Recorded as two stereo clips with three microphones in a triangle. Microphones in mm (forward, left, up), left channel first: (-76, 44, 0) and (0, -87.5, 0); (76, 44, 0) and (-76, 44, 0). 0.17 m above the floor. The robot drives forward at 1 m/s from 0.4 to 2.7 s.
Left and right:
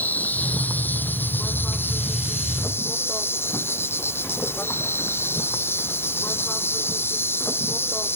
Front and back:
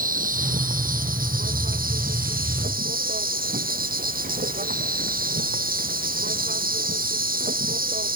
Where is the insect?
160° right; by 8.2 s 165° right.